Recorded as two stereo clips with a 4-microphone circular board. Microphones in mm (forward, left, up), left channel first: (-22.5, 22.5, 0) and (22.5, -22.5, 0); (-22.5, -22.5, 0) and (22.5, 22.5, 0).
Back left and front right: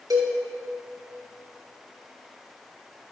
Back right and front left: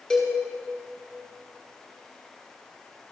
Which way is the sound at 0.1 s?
55° right.